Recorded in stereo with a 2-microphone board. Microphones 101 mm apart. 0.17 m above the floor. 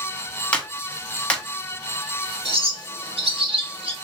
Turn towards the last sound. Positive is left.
turn(degrees=-70)  # may be behind; listen again after turning